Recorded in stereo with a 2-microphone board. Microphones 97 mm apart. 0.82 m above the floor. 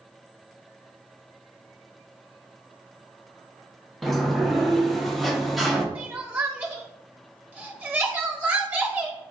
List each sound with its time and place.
4.0 s a sliding door: centre (ahead or behind), 0.5 m
6.0 s crying: 20° right (ahead or behind), 0.6 m